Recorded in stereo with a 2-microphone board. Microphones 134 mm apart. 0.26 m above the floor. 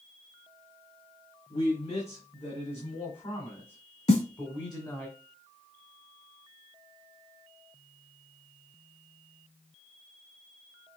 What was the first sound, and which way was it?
A man speaking, 60° left (ahead or behind).